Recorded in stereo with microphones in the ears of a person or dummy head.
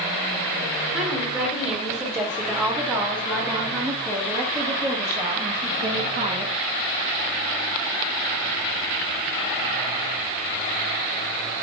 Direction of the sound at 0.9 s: Centre (ahead or behind).